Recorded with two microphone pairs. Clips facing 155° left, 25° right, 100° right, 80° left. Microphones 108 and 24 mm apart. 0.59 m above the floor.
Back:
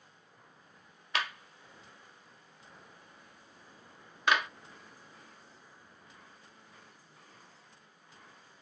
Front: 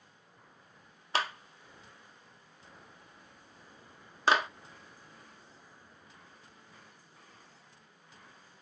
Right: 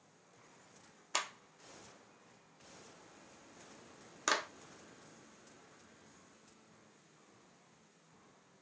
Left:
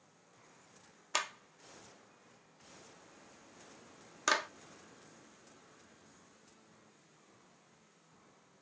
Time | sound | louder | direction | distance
1.1 | a clap | front 3 dB, left 2 dB | straight ahead | 0.8 m